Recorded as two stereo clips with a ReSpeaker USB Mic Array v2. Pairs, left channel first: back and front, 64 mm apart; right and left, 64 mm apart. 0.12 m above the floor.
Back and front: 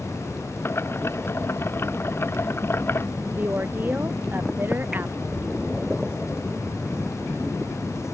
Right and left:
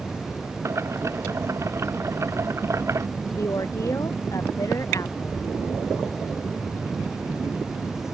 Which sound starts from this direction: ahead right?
A woman speaking, at 3.3 s.